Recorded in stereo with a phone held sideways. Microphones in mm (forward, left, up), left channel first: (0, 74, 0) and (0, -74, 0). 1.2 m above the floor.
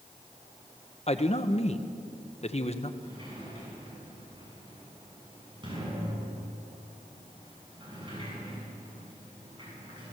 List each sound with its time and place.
1.1 s a man speaking: 45° left (ahead or behind), 1.1 m
3.0 s a sliding door: 35° right (ahead or behind), 8 m